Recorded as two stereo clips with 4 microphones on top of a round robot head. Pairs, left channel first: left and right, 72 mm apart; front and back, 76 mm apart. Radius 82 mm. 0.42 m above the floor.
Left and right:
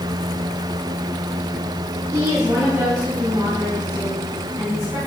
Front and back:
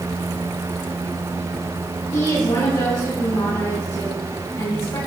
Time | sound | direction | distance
2.1 | a woman speaking | 40° right | 3.5 m